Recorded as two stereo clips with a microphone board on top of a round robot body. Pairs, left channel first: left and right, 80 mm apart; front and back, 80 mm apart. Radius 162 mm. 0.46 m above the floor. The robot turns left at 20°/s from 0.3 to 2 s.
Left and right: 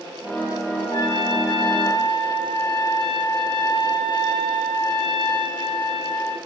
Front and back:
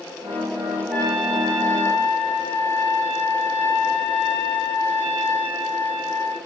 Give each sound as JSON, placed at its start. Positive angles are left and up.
{"t": 0.9, "sound": "a trumpet", "azimuth_deg": 90, "distance_m": 5.0}